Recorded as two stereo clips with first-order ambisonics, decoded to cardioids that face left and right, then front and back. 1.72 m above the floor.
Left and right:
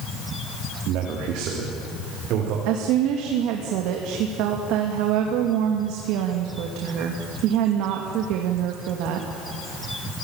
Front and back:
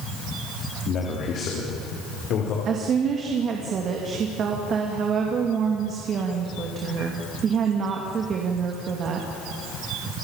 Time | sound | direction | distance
0.9 | a man speaking | 55° right | 3.5 m
2.6 | a woman speaking | 120° right | 2.5 m